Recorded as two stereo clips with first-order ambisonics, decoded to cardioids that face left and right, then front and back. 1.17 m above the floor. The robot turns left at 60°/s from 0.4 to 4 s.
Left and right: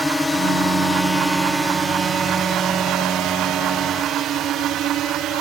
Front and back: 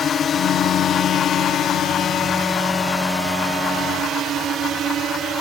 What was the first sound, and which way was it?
A drone, 10° left.